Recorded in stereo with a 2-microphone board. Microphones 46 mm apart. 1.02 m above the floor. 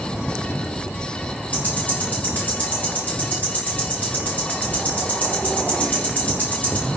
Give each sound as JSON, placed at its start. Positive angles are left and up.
{"t": 1.5, "sound": "ticking", "side_deg": 40, "distance_m": 1.0}